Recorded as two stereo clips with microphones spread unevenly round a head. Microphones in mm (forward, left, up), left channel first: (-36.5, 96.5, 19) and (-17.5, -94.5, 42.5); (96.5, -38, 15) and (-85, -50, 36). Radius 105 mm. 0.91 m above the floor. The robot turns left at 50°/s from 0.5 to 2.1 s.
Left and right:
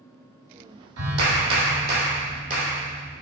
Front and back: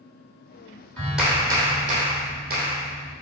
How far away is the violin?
No violin in this recording.